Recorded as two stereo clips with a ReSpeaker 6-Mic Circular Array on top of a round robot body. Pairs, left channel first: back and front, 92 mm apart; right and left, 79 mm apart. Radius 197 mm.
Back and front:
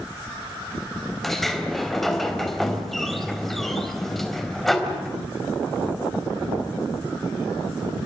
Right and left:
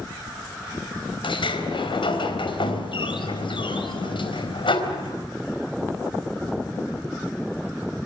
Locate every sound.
1.2 s a sliding door: 90° right, 3.5 m